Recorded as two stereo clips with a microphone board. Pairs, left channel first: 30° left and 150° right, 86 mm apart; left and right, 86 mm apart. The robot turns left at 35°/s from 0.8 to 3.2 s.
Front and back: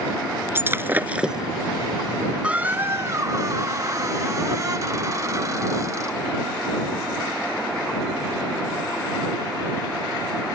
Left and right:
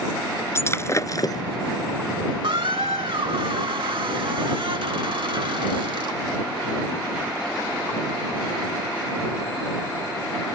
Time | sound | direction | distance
0.6 | breaking glass | 145° left | ?
2.4 | a squeak | 75° right | ?